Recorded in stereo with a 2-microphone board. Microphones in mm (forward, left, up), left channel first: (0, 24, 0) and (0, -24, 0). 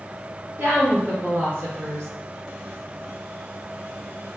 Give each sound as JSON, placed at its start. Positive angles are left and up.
{"t": 0.6, "sound": "a woman speaking", "side_deg": -45, "distance_m": 1.9}